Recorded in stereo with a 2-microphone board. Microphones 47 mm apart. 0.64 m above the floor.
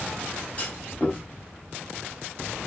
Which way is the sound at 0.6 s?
30° left (ahead or behind).